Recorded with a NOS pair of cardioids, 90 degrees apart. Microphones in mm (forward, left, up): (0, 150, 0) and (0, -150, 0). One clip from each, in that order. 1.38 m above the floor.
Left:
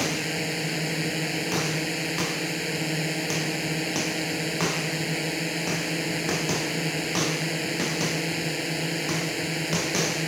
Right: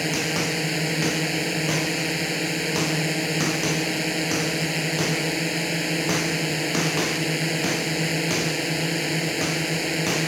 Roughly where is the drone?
Ahead right.